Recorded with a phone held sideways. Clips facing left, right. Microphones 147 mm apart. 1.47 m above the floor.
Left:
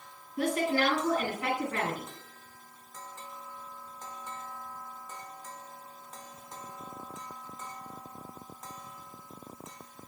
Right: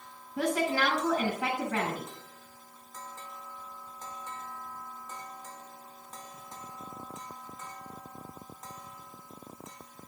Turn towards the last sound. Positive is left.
turn(degrees=-75)  # may be behind; listen again after turning